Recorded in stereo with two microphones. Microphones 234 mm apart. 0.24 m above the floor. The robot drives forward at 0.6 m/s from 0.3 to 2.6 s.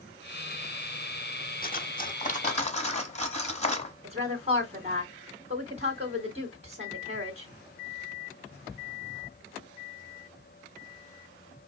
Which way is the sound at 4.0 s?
30° right (ahead or behind).